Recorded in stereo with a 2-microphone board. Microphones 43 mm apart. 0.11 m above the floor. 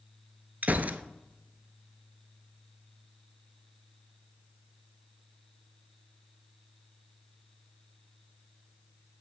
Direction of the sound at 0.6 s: 45° right (ahead or behind).